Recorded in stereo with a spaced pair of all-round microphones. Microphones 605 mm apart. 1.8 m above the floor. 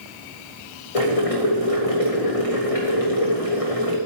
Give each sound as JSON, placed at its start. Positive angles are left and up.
{"t": 0.9, "sound": "boiling", "side_deg": 65, "distance_m": 3.5}